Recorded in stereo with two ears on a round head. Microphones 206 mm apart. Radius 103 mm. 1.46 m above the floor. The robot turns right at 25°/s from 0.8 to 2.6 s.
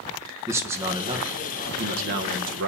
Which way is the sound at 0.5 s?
170° right.